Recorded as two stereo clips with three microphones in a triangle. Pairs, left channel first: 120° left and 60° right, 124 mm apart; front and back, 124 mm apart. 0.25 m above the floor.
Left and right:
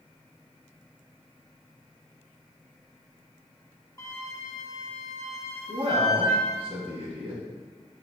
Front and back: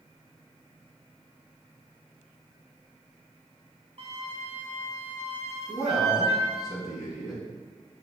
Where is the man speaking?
95° right, 2.5 m.